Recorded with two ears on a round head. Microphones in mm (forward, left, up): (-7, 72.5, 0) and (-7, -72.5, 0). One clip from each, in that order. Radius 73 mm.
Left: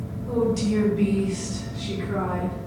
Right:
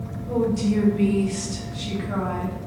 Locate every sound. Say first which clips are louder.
0.3 s a woman speaking: even; 30° left (ahead or behind), 1.1 m; by 2.6 s 75° right (ahead or behind), 1.2 m